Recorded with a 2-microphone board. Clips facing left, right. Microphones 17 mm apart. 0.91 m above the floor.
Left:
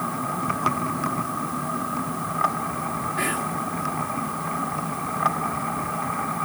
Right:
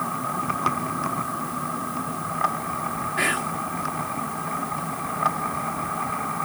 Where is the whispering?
25° right (ahead or behind).